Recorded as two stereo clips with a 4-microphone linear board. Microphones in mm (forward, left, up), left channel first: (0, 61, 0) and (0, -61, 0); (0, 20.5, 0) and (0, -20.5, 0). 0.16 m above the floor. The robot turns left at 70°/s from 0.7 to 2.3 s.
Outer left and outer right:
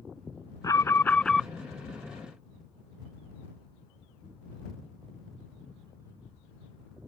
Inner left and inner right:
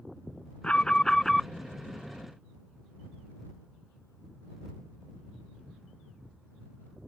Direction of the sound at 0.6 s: 50° left.